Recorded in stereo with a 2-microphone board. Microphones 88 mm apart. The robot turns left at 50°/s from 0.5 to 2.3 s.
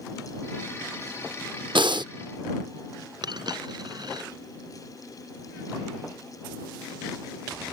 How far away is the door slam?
I don't hear a door slam.